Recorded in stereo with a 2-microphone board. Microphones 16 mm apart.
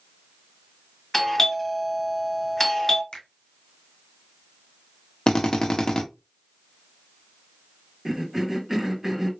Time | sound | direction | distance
1.1 | a doorbell | 15° left (ahead or behind) | 1.5 m
3.1 | a finger snap | 65° left (ahead or behind) | 2 m
5.3 | a drill | 55° left (ahead or behind) | 0.9 m
8.1 | a cough | 20° right (ahead or behind) | 1.5 m